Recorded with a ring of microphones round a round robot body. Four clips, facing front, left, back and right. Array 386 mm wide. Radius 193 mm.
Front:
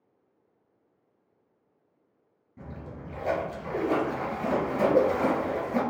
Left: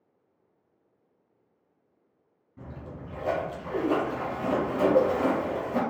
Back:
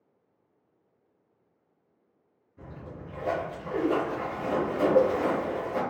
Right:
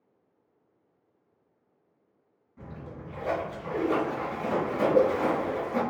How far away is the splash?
About 2 m.